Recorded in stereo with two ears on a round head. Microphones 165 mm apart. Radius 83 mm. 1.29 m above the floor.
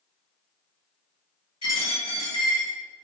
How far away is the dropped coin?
About 1.9 m.